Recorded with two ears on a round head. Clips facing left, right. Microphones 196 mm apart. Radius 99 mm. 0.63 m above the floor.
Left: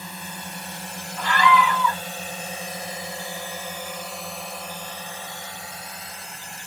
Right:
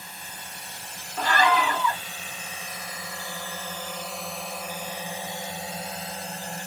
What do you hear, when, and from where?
0.0 s a drone: 60° left (ahead or behind); by 6.7 s 35° right (ahead or behind)
1.2 s a scream: 35° right (ahead or behind)